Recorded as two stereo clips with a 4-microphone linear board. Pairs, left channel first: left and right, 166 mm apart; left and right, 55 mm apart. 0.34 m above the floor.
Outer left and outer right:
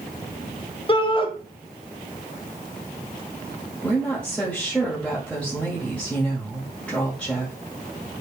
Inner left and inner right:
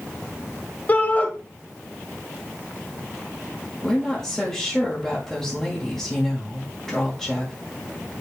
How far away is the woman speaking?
About 1.9 m.